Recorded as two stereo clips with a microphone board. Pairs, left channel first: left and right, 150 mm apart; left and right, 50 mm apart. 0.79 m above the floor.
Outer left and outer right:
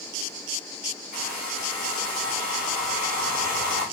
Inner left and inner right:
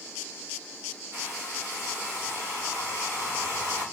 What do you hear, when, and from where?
1.1 s a hair dryer: 70° right (ahead or behind), 2.5 m